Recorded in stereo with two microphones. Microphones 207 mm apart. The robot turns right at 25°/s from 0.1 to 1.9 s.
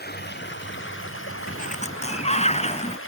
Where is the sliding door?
40° left (ahead or behind); by 3.0 s 30° left (ahead or behind).